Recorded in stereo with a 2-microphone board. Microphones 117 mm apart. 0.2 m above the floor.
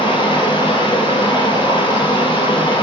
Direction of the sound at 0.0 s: 45° left (ahead or behind).